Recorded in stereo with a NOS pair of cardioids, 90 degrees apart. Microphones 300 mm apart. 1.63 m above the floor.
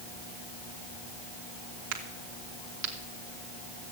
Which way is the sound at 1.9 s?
70° right.